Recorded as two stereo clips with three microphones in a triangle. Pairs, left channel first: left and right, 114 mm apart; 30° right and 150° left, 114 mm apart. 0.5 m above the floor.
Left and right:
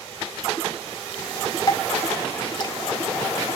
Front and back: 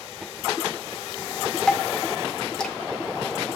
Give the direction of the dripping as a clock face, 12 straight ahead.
10 o'clock.